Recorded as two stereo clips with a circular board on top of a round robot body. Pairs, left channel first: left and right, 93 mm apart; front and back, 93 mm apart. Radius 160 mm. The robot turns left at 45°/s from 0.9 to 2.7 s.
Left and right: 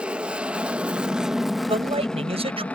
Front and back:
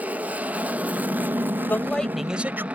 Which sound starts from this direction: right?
A man speaking, at 1.7 s.